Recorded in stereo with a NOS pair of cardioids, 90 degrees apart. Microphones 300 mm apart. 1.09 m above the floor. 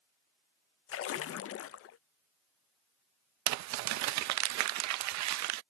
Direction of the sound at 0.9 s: 50° left.